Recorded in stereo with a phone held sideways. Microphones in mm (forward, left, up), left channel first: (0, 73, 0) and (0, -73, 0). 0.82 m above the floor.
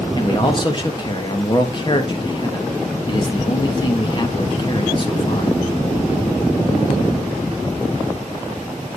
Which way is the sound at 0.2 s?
35° left (ahead or behind).